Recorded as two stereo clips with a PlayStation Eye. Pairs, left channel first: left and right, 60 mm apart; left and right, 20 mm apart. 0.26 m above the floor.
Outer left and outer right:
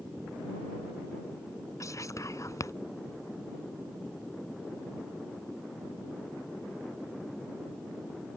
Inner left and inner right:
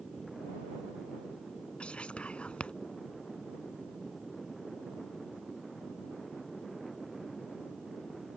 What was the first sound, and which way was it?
Whispering, 60° left (ahead or behind).